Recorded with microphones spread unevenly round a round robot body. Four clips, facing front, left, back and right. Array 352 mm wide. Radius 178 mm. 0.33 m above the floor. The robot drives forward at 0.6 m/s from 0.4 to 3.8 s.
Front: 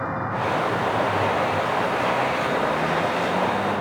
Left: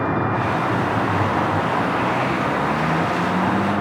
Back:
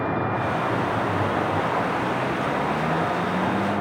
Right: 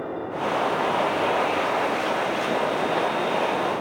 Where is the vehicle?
100° left; by 3.8 s 105° left.